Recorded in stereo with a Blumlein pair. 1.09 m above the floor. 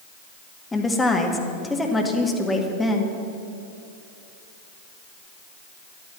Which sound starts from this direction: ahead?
A woman speaking, at 0.7 s.